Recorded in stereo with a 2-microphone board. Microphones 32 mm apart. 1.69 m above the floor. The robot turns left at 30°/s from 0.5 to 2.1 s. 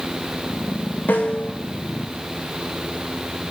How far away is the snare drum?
About 3.5 m.